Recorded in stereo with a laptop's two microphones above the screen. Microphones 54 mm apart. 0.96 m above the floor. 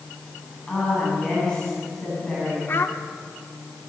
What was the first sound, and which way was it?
A woman speaking, 15° left (ahead or behind).